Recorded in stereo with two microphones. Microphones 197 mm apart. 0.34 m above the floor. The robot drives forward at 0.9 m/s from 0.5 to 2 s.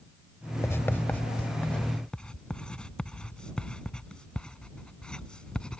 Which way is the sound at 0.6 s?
15° left (ahead or behind).